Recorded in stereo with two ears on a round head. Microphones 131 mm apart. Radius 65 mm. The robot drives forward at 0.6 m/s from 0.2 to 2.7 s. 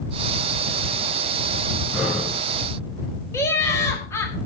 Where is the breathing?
Centre (ahead or behind), 7.5 m.